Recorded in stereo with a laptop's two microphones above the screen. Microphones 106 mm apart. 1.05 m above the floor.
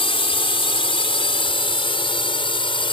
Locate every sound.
0.0 s a drone: 60° left (ahead or behind); by 2.9 s 55° left (ahead or behind)